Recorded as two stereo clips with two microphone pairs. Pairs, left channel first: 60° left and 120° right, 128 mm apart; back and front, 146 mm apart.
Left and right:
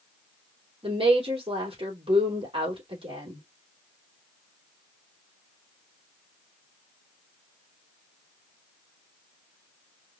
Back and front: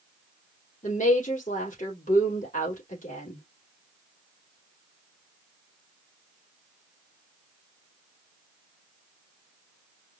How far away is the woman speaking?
About 3.5 m.